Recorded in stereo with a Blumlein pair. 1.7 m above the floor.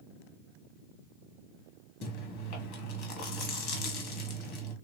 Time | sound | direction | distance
2.0 | chewing | 40° left | 1.2 m